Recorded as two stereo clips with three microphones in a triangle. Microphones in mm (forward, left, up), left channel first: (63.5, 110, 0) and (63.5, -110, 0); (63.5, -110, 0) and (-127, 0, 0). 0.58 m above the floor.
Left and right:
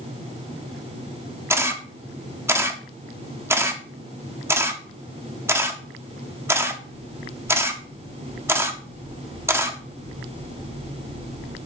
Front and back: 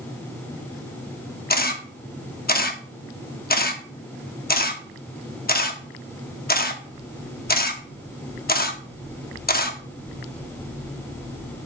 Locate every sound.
1.5 s a camera shutter: 15° right, 0.8 m